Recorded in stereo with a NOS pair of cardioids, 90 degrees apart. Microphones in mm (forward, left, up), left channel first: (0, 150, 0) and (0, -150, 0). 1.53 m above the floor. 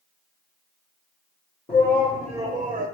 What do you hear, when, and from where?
1.7 s a shout: 20° left, 1.0 m; by 2.9 s 25° right, 1.0 m